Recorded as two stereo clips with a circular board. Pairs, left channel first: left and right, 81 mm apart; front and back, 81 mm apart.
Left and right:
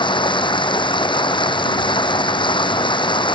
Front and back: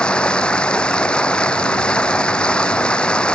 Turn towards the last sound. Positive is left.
turn(degrees=75)